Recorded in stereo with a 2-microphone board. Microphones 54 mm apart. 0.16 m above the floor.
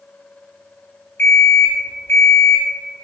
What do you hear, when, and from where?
1.2 s an alarm clock: 50° left (ahead or behind), 0.9 m